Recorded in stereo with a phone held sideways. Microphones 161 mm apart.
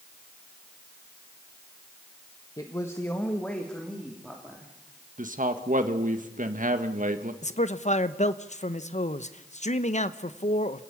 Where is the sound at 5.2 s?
55° right (ahead or behind), 1.8 m.